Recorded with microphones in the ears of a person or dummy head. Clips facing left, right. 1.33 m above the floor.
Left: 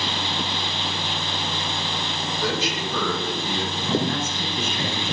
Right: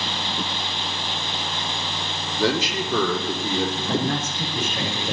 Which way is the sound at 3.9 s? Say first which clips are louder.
Even; 60° right (ahead or behind).